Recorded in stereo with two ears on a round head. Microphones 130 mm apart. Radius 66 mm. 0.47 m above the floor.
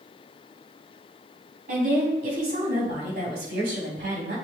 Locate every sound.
1.7 s a woman speaking: 65° right (ahead or behind), 3.5 m